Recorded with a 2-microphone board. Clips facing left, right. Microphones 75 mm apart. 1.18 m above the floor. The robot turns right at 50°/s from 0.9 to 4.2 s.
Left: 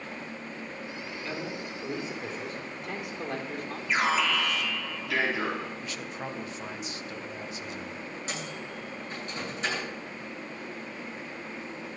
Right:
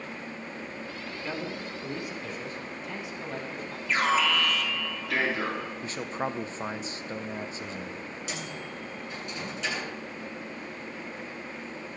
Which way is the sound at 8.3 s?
40° left (ahead or behind).